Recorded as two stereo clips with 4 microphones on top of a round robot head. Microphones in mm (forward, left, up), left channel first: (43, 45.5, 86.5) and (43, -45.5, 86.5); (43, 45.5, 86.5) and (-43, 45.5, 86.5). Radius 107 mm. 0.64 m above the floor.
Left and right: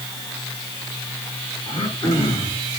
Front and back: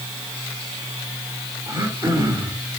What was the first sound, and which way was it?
Throat clearing, 140° left.